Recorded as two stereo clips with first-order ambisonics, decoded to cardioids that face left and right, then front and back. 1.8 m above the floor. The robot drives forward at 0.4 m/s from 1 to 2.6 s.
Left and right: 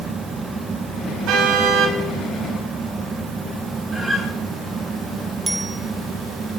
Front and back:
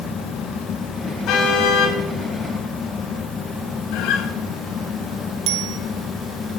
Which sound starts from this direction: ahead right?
A car horn, at 1.3 s.